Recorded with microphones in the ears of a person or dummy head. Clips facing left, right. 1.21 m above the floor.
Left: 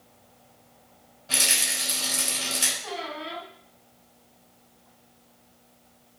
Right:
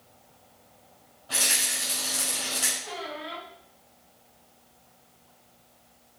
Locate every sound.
1.3 s a rattle: 30° left (ahead or behind), 4 m
2.8 s a squeak: 65° left (ahead or behind), 3 m